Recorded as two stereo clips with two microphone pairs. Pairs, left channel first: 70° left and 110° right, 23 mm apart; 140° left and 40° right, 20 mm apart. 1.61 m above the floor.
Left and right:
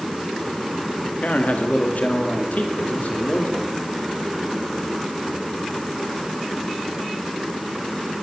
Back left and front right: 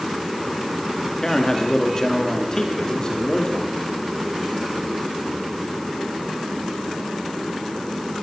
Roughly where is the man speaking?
Left.